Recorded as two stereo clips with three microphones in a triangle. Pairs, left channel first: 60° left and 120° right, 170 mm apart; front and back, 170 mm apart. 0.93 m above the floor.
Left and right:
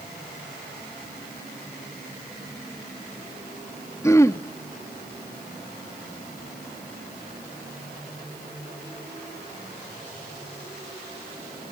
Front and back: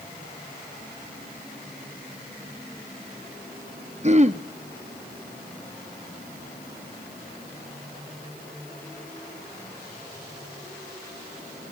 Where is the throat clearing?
130° left, 1.1 m.